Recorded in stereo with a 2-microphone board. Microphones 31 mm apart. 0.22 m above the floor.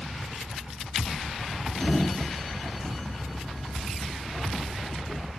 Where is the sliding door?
15° left (ahead or behind), 0.7 m.